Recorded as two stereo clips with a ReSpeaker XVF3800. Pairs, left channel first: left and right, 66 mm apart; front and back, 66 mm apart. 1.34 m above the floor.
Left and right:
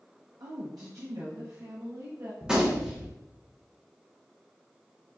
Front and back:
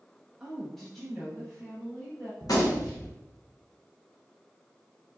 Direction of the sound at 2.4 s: 10° right.